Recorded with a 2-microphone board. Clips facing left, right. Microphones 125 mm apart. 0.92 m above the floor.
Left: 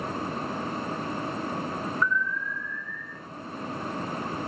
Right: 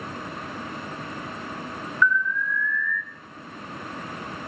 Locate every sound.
2.0 s an alarm: 40° left (ahead or behind), 1.3 m